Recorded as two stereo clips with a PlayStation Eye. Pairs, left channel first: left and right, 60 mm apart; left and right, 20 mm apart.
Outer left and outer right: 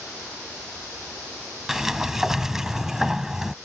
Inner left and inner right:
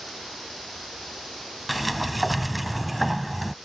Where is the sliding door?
5° right (ahead or behind).